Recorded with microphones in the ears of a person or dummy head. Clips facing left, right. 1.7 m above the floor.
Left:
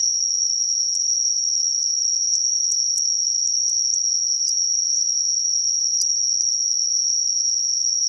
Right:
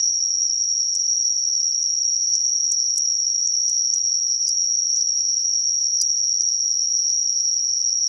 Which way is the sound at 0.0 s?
70° right (ahead or behind).